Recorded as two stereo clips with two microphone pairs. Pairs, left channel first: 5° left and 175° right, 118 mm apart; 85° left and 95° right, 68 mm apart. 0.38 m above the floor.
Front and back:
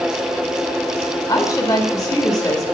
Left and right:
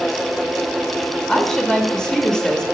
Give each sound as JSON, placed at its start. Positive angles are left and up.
{"t": 1.3, "sound": "a woman speaking", "azimuth_deg": 15, "distance_m": 1.4}